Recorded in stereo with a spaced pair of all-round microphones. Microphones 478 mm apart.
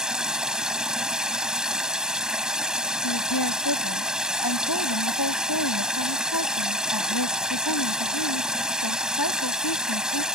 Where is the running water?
Centre (ahead or behind).